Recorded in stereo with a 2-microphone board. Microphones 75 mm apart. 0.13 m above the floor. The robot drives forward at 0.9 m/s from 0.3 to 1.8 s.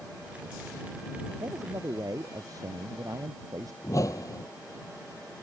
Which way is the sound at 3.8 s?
50° left (ahead or behind).